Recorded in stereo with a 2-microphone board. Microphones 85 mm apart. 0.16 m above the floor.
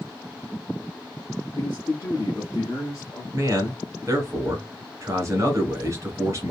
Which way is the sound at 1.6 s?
20° left (ahead or behind).